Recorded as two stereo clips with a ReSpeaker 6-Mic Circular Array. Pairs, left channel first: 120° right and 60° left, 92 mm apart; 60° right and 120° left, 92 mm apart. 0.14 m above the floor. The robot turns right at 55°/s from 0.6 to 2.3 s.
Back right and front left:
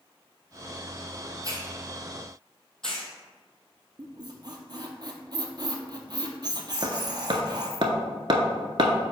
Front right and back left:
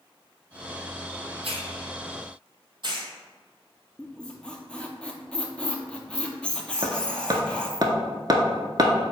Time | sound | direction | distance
1.4 | a hiss | 110° left | 0.7 m
4.0 | a squeak | 20° left | 0.5 m
6.8 | hammering | 85° left | 0.5 m